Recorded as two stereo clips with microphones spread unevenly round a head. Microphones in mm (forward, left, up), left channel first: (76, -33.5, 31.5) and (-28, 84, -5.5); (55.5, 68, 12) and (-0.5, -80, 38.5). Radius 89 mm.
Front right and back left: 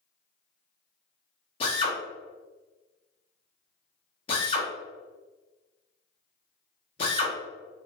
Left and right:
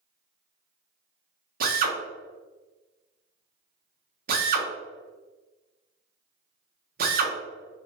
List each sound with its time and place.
1.6 s a drill: 110° right, 0.6 m